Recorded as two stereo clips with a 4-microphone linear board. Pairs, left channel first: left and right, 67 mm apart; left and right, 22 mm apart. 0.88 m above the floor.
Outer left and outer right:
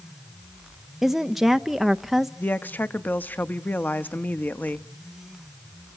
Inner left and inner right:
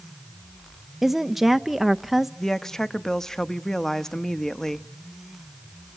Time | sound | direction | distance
1.0 | a woman speaking | 5° right (ahead or behind) | 0.5 m
2.4 | a woman speaking | 25° left (ahead or behind) | 0.9 m